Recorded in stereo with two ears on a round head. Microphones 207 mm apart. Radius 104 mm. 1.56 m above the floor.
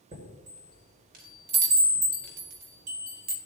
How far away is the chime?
About 1.9 m.